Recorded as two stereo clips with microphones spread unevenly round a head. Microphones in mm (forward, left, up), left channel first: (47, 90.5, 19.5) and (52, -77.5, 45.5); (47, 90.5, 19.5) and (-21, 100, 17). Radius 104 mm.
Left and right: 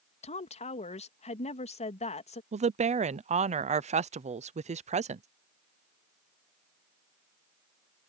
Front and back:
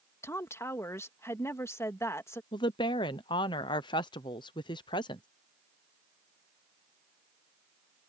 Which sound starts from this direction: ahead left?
A woman speaking, at 0.2 s.